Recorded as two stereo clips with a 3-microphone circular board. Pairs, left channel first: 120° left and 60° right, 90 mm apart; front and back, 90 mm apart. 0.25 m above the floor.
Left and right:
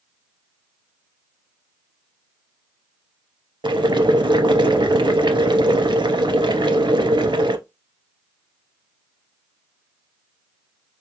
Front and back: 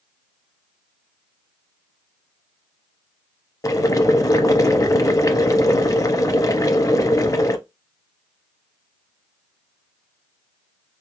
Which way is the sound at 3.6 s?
45° right.